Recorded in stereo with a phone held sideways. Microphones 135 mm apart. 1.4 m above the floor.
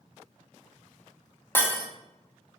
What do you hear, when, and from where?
1.6 s breaking glass: 15° left (ahead or behind), 0.8 m